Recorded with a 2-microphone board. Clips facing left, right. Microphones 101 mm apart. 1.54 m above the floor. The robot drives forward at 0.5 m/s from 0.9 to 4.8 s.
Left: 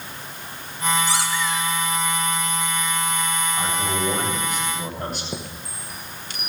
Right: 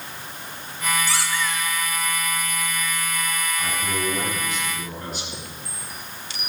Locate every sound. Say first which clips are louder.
1.1 s a squeak: left 2 dB; 20° left (ahead or behind), 2.0 m
3.6 s a man speaking: left 3 dB; 65° left (ahead or behind), 7.5 m; by 5.2 s 70° left (ahead or behind), 7.5 m
5.3 s a chime: left 4 dB; 45° left (ahead or behind), 1.1 m